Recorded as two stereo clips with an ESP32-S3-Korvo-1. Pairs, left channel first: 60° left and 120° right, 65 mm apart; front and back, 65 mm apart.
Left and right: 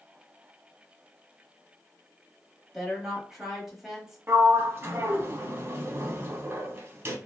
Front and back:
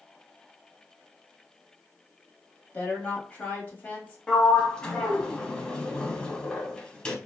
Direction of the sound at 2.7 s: 40° right.